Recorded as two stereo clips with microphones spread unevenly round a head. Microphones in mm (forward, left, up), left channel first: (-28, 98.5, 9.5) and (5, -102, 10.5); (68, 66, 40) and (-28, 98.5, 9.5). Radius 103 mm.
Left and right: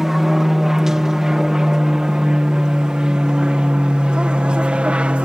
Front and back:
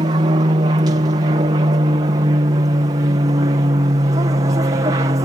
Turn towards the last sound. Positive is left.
turn(degrees=-165)